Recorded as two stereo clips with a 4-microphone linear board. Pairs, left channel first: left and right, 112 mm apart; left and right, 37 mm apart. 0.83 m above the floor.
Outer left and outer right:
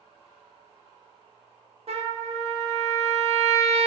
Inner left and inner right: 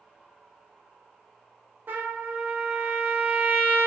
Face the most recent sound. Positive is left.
turn(degrees=-60)  # may be behind; listen again after turning